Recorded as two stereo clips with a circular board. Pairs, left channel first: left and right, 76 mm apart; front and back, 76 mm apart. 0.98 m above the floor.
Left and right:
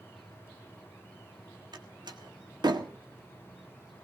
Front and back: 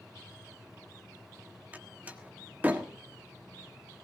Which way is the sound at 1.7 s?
110° right.